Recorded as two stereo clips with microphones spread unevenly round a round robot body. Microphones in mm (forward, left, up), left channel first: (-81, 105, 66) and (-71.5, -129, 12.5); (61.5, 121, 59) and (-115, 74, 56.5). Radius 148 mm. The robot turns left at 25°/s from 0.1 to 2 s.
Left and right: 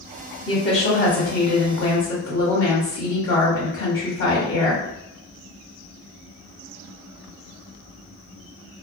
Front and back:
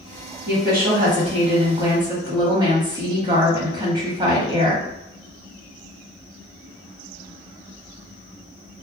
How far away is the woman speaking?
About 1.2 m.